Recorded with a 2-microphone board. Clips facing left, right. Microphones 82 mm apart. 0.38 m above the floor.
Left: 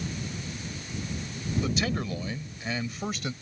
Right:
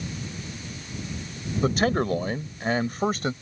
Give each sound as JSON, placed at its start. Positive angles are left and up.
{"t": 1.6, "sound": "a man speaking", "side_deg": -45}